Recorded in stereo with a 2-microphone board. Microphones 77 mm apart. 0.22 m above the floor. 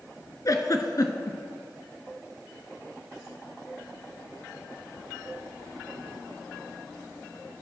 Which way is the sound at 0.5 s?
55° left (ahead or behind).